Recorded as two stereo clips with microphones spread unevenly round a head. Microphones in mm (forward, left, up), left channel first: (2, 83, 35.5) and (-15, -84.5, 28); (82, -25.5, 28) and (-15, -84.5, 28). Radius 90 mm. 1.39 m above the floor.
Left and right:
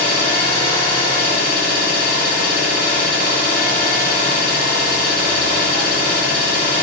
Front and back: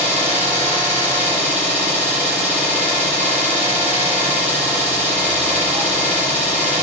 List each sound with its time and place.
0.0 s an engine running: 160° left, 3 m